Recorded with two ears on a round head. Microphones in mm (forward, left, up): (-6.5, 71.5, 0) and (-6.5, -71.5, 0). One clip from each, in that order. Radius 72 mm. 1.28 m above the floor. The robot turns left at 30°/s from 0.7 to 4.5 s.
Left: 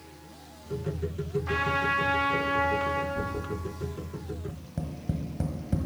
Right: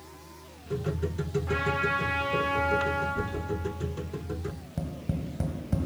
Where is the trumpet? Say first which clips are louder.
Left 1 dB; 130° left, 2.5 m; by 3.0 s 80° left, 2.5 m.